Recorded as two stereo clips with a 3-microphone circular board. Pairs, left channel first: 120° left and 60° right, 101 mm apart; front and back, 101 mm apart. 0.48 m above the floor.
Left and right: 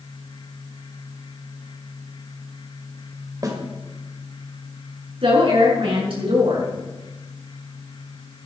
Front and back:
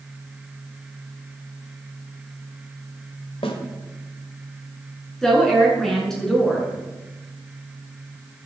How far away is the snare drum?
About 2 m.